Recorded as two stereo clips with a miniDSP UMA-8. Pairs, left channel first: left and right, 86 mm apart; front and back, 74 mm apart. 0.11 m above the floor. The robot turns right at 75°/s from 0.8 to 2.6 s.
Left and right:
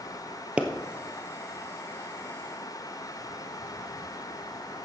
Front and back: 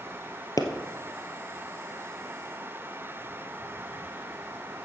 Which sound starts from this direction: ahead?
A pop, at 0.6 s.